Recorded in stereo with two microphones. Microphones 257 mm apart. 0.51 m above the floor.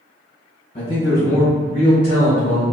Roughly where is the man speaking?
Left.